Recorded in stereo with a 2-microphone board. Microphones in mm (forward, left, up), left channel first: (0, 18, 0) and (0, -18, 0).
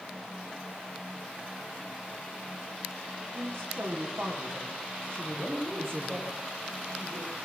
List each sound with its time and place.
3.3 s a woman speaking: 80° right, 8.5 m; by 6.3 s 75° right (ahead or behind), 7 m
5.3 s a man speaking: 60° right (ahead or behind), 9 m